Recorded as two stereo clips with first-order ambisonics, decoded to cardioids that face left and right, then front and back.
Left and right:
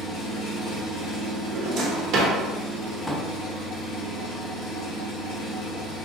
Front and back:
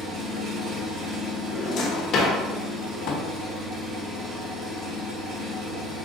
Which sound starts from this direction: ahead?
A drawer, at 3.0 s.